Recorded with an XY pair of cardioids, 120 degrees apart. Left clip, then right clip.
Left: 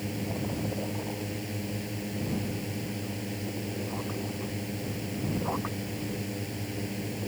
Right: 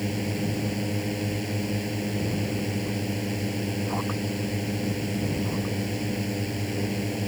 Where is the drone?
35° right.